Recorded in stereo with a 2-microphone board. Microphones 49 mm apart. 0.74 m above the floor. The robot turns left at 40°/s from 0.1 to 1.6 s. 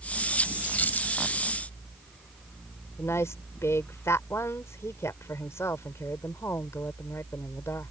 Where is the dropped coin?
30° left (ahead or behind); by 1.1 s 45° left (ahead or behind).